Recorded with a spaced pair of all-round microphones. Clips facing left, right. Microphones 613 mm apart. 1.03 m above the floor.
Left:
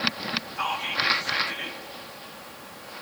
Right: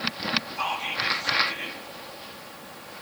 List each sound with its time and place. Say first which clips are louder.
0.6 s whispering: even; 45° left (ahead or behind), 5.5 m